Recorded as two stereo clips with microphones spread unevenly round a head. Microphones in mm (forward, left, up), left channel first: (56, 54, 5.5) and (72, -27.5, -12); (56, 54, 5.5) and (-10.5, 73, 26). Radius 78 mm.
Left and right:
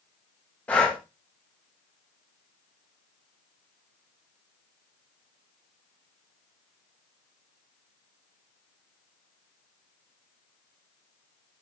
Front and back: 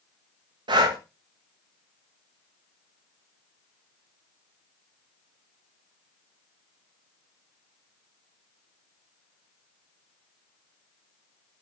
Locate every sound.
0.7 s breathing: 175° right, 1.2 m